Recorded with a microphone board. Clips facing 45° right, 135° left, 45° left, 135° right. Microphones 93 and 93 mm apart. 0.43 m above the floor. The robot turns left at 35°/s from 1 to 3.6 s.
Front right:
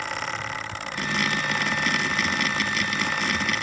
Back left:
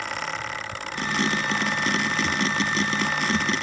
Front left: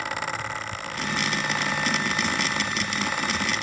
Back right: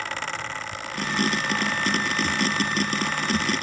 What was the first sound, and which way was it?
Only background noise.